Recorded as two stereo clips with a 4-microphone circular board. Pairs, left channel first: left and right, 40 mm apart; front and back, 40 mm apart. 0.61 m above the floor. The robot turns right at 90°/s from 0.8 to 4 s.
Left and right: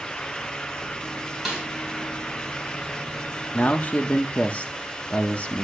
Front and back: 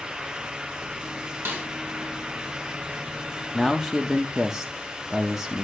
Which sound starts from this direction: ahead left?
A man speaking, at 3.5 s.